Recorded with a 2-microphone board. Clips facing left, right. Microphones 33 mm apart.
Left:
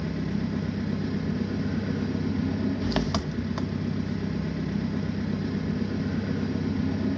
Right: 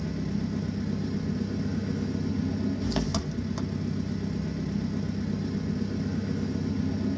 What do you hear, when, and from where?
0.0 s an engine running: 30° left (ahead or behind), 1.0 m